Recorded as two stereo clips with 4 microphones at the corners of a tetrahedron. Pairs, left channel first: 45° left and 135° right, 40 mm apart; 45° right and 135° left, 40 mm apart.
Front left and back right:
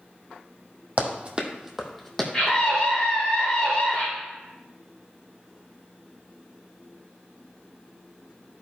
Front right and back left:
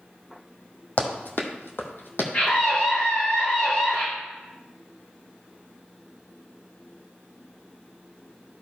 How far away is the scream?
About 1.9 m.